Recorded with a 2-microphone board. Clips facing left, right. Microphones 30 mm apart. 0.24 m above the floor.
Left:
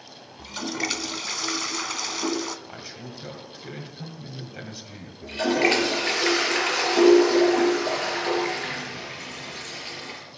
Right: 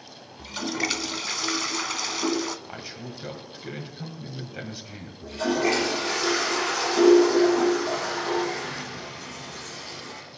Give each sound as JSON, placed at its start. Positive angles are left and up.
{"t": 0.4, "sound": "a toilet flushing", "side_deg": -5, "distance_m": 0.5}
{"t": 2.7, "sound": "a man speaking", "side_deg": -10, "distance_m": 1.5}
{"t": 5.2, "sound": "a toilet flushing", "side_deg": 60, "distance_m": 4.0}